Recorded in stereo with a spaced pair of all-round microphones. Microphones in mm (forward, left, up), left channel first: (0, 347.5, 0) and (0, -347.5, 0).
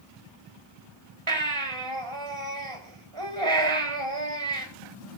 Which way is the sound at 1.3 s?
45° right (ahead or behind).